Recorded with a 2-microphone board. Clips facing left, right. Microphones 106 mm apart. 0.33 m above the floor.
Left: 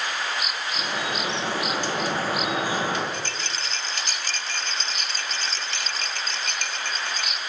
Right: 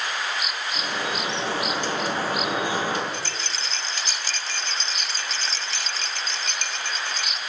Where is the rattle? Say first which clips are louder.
Even; 55° left (ahead or behind), 0.8 m.